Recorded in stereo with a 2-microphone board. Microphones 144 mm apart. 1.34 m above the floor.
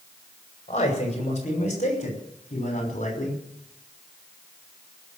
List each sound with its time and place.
0.7 s a man speaking: 50° left (ahead or behind), 6 m; by 3.4 s 60° left (ahead or behind), 5 m